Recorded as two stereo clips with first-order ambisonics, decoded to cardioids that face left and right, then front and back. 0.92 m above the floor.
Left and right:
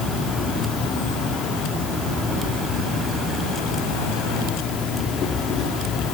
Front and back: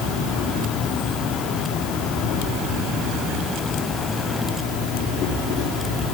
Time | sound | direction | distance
0.0 | an insect | 45° left | 3 m